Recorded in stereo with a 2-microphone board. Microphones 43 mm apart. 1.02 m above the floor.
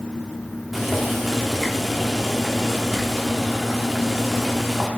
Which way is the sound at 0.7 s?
Centre (ahead or behind).